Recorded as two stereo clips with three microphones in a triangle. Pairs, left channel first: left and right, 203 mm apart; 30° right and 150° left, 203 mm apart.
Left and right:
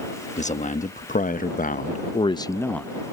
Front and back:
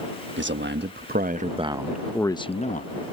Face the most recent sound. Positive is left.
turn(degrees=5)